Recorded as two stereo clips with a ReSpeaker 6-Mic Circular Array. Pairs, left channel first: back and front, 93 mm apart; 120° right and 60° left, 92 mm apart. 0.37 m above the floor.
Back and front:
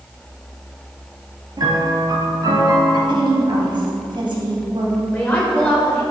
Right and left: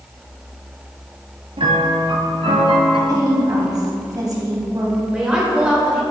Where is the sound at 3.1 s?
15° left, 2.5 m.